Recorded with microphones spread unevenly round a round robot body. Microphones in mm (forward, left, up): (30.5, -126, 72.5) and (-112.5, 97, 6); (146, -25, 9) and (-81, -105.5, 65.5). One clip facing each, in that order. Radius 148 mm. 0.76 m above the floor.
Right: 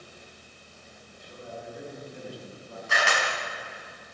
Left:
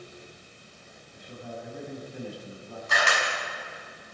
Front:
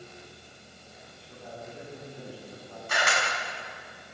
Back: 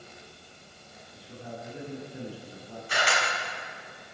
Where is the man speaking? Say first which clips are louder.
Left 2 dB, back 3 dB; 120° left, 7.5 m.